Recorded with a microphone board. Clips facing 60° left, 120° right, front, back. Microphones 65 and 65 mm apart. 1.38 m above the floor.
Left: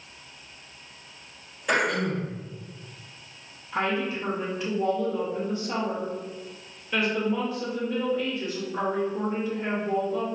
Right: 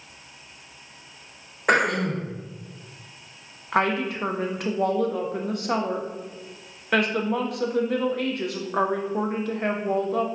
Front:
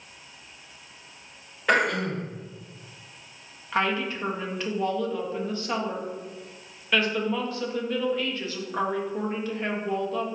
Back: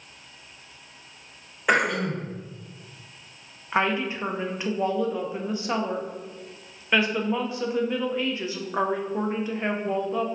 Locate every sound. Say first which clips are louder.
1.7 s throat clearing: right 3 dB, even; 105° right, 0.5 m
3.7 s a woman speaking: right 4 dB, back 2 dB; 110° right, 0.5 m